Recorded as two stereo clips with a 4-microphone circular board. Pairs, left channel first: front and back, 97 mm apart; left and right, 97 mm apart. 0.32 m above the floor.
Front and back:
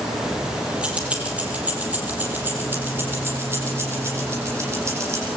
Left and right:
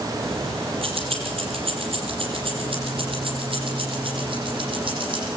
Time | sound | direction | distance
0.2 | keys jangling | 95° right | 5.5 m